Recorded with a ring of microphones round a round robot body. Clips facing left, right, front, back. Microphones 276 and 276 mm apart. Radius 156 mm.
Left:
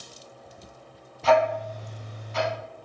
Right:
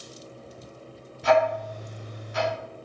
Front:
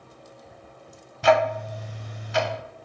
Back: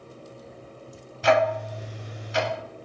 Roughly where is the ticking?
Ahead.